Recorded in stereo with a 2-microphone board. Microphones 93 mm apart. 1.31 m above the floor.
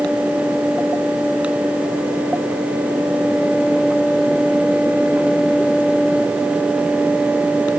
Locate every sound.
Only background noise.